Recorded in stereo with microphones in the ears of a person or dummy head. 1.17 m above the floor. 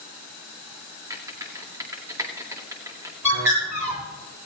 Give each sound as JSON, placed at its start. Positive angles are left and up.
{"t": 1.1, "sound": "typing on a keyboard", "side_deg": -20, "distance_m": 1.9}
{"t": 3.2, "sound": "a bird", "side_deg": -15, "distance_m": 8.5}